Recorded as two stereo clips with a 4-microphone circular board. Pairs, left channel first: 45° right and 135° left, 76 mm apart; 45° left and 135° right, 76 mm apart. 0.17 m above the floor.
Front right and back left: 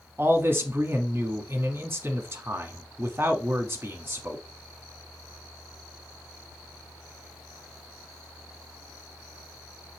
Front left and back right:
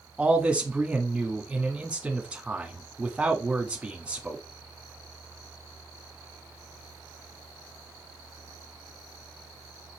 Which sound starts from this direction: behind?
A man speaking, at 0.2 s.